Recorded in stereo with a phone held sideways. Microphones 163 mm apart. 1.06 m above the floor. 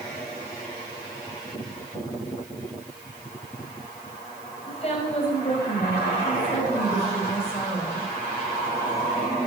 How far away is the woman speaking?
About 5 m.